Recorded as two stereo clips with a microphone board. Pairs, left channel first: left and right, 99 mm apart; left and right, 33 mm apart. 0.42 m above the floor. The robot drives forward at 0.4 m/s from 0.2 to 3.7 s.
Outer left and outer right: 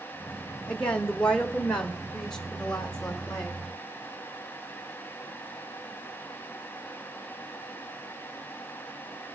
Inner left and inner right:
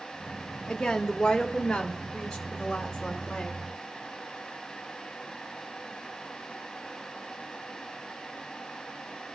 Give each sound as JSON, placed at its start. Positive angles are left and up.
{"t": 0.7, "sound": "a woman speaking", "side_deg": 10, "distance_m": 0.9}